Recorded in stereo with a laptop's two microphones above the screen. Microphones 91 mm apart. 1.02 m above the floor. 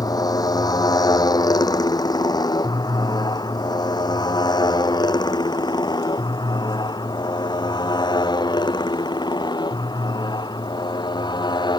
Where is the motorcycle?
40° left (ahead or behind); by 11.8 s 50° left (ahead or behind).